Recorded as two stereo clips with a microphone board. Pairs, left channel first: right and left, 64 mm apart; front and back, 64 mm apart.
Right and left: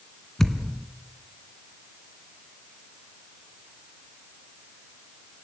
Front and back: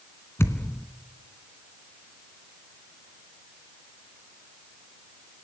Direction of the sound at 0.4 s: 10° right.